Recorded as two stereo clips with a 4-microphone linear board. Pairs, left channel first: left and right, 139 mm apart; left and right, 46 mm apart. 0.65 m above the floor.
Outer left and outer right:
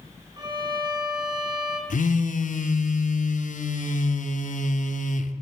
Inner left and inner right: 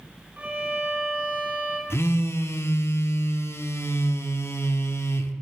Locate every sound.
0.4 s a violin: 30° right (ahead or behind), 1.2 m
1.9 s a phone buzzing: 70° left (ahead or behind), 0.6 m